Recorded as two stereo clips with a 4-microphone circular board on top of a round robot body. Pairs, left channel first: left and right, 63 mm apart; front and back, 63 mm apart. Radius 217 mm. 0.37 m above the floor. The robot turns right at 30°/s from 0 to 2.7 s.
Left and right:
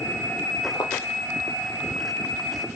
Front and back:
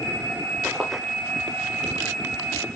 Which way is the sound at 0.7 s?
85° left.